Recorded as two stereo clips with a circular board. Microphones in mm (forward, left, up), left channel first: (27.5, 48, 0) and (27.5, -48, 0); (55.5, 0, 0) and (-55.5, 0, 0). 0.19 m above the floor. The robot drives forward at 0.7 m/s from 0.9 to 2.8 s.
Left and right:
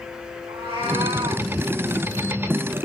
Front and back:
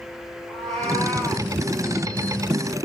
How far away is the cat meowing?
About 6 m.